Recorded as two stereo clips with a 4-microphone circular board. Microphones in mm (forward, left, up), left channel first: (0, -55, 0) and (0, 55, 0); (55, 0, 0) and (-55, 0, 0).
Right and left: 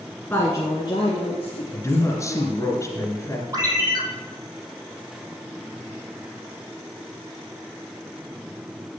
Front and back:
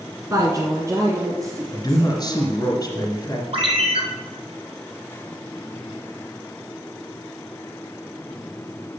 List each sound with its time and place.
0.3 s a woman speaking: 150° right, 1.4 m; by 2.5 s 110° right, 3.5 m
1.7 s a man speaking: 40° right, 1.7 m
3.5 s a ringtone: 150° left, 1.8 m